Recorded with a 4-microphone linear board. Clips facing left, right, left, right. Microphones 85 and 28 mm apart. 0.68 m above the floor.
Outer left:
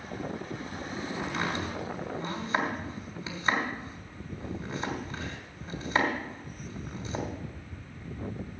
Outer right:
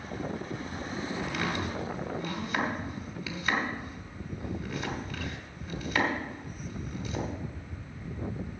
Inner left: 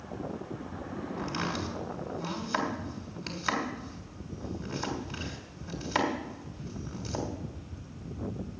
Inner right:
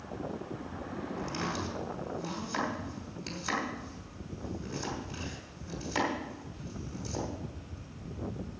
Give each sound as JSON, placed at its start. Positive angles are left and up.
{"t": 1.2, "sound": "chopping", "side_deg": 30, "distance_m": 2.5}